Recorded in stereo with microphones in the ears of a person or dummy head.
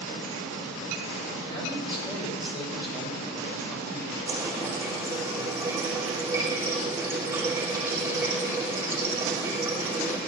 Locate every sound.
1.4 s a man speaking: 30° left (ahead or behind), 6.5 m
4.3 s a running tap: 20° right (ahead or behind), 4.5 m